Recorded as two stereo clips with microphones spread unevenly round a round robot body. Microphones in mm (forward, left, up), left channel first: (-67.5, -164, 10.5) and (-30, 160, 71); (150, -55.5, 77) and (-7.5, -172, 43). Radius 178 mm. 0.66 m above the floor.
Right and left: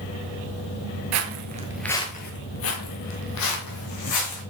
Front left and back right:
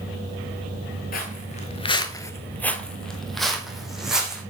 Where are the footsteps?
80° left, 0.9 m; by 4.4 s 55° right, 3 m.